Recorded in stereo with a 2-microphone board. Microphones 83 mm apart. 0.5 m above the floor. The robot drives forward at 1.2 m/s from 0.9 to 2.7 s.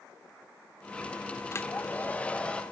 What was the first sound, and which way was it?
A hair dryer, 35° left (ahead or behind).